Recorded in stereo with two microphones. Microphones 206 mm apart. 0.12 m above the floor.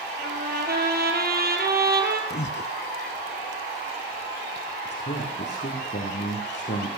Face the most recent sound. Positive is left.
turn(degrees=60)  # may be behind; listen again after turning